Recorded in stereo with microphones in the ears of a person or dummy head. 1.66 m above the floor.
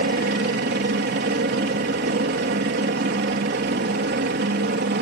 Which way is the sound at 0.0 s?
55° right (ahead or behind).